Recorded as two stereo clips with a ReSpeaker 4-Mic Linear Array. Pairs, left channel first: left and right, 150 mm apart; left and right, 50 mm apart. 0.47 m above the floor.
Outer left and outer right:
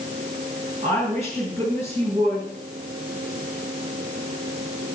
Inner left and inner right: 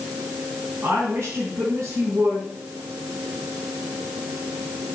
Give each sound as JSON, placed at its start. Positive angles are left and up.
{"t": 0.8, "sound": "a woman speaking", "side_deg": -45, "distance_m": 4.5}